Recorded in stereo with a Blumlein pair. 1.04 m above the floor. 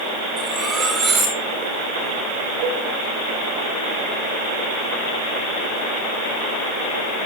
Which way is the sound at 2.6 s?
45° right.